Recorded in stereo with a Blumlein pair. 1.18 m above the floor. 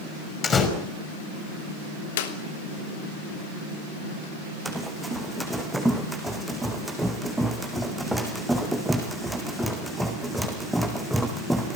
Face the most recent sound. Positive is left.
turn(degrees=0)